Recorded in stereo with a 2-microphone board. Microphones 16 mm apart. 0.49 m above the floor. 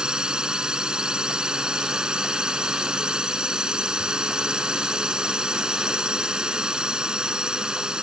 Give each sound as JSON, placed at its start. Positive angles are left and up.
{"t": 0.0, "sound": "a drone", "side_deg": -70}